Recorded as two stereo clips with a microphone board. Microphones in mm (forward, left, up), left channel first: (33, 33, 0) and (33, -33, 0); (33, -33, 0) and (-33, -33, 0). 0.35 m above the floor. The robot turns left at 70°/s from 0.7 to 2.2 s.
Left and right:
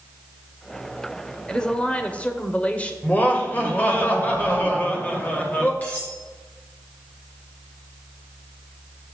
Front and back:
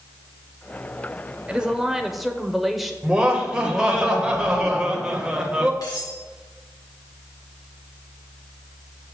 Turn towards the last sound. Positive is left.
turn(degrees=25)